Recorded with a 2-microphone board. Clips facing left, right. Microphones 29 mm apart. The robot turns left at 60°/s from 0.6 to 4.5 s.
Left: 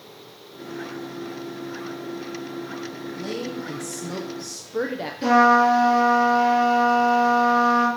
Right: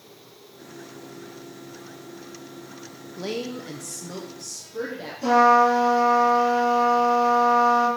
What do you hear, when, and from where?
3.2 s a woman speaking: 140° right, 0.5 m; by 5.1 s 140° left, 0.5 m
5.2 s a trumpet: 65° left (ahead or behind), 3 m